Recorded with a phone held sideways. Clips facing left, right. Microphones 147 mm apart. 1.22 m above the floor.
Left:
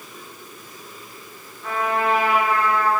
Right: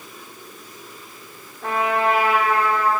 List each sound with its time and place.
1.6 s a trumpet: 85° right, 2.5 m